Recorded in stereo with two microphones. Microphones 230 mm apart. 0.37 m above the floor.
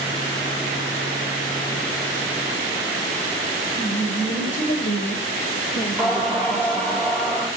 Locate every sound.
3.8 s a woman speaking: 50° left (ahead or behind), 1.8 m; by 7.0 s 5° right (ahead or behind), 1.3 m
6.0 s singing: 5° left (ahead or behind), 1.9 m